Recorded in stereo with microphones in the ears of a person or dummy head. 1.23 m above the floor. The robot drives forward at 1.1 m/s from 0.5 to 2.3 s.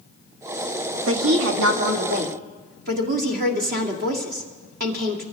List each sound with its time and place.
1.1 s a woman speaking: 85° right, 1.7 m; by 5.2 s 50° right (ahead or behind), 2 m